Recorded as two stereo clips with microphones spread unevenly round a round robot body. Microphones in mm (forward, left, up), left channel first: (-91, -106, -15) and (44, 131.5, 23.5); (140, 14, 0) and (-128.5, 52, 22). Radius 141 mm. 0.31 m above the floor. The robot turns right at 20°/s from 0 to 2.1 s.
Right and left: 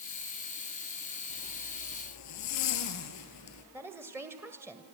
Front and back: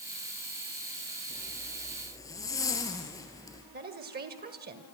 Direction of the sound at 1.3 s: 105° right.